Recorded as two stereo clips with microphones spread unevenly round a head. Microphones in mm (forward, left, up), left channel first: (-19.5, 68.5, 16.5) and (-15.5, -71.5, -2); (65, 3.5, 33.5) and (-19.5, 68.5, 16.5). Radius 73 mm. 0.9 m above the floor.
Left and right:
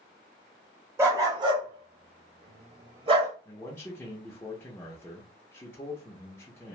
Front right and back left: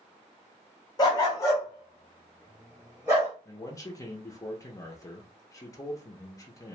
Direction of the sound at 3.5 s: 15° left.